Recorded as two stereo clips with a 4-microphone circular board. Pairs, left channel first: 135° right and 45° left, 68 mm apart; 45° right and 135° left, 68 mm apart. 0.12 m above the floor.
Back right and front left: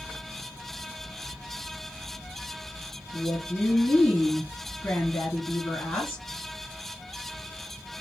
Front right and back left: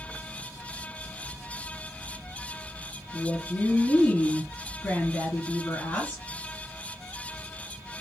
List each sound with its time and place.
3.1 s a woman speaking: 100° right, 2.0 m